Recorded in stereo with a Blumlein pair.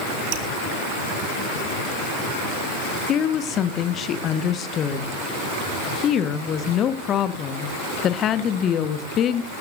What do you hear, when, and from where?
0.3 s dripping: 50° right, 2 m
3.1 s a woman speaking: 30° left, 1.4 m